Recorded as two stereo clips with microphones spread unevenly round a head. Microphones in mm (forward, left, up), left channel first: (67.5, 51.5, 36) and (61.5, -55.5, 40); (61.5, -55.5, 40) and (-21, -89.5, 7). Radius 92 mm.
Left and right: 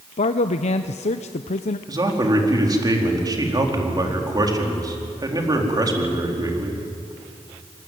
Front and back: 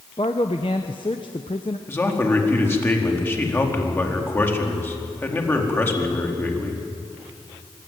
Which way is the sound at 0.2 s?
80° left.